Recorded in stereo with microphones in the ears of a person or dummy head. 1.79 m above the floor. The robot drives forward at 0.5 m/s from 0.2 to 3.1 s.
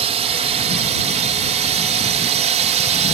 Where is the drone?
35° right (ahead or behind).